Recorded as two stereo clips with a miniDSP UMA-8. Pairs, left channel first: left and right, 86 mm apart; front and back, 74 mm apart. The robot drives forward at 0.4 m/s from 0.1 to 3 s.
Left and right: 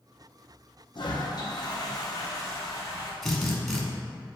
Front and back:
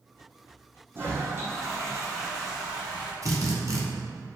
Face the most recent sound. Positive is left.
turn(degrees=175)